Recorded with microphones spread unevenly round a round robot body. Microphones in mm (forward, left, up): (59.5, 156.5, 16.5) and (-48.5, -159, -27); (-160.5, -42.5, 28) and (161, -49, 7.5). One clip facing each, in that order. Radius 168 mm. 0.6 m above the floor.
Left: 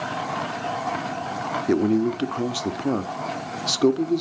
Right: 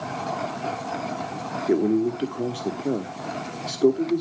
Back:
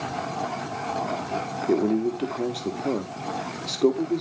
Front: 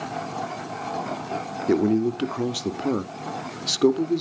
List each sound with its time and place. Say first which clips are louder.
1.7 s a man speaking: left 1 dB, front 2 dB; 20° left, 1.0 m